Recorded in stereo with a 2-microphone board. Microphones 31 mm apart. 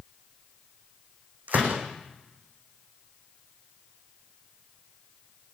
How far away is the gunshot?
About 7 m.